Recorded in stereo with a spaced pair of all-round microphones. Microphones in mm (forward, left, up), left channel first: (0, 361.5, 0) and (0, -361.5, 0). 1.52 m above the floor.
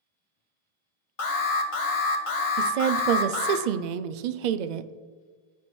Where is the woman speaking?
75° right (ahead or behind), 0.6 m.